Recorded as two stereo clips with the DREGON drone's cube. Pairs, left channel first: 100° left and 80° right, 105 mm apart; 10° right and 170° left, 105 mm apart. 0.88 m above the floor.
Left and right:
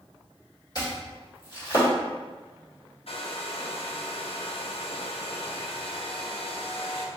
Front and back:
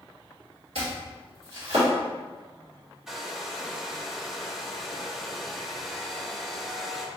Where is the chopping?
150° left, 1.7 m.